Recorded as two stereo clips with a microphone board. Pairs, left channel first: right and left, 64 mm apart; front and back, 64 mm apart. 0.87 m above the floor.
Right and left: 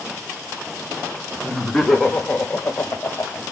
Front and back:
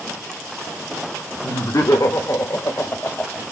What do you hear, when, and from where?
1.4 s laughter: straight ahead, 1.3 m; by 3.4 s 60° right, 0.8 m